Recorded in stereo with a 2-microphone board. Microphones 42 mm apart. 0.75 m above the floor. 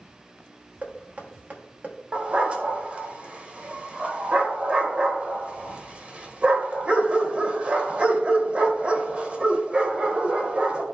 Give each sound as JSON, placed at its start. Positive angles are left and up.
{"t": 0.8, "sound": "knocking", "side_deg": -40, "distance_m": 1.1}
{"t": 2.1, "sound": "a dog barking", "side_deg": -25, "distance_m": 1.0}